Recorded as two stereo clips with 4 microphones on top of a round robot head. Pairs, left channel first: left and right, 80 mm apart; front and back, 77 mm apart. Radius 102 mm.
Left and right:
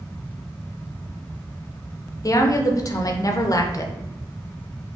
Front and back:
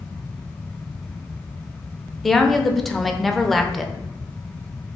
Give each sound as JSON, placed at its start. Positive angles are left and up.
{"t": 2.2, "sound": "a woman speaking", "azimuth_deg": 85, "distance_m": 0.6}